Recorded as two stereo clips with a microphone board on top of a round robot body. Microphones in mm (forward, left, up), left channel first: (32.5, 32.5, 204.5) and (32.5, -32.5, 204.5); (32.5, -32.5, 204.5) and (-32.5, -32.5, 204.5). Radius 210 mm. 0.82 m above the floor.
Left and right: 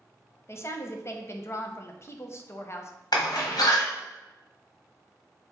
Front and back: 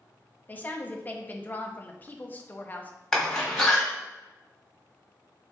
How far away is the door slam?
About 1.3 m.